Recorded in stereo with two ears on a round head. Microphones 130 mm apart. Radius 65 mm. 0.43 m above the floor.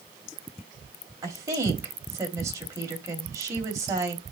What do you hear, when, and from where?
1.2 s a woman speaking: 25° right (ahead or behind), 2.5 m